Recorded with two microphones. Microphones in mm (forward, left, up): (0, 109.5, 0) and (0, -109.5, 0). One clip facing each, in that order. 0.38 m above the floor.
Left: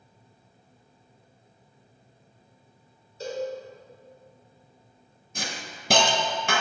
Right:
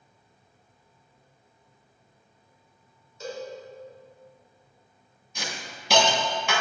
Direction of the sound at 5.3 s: 50° left (ahead or behind).